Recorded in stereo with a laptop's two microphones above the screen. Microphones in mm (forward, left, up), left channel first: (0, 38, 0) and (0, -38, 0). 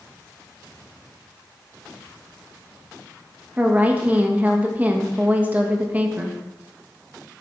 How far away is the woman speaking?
About 1.2 m.